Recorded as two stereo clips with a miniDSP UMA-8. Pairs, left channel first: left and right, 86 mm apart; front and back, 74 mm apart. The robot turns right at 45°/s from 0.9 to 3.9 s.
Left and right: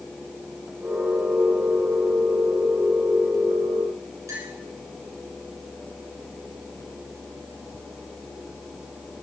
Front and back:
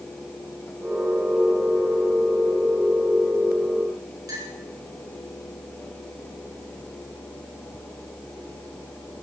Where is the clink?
145° right, 7.5 m.